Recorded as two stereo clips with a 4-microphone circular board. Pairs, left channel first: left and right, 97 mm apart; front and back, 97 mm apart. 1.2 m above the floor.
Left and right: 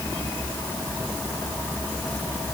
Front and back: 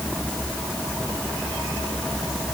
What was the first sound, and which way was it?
Only background noise.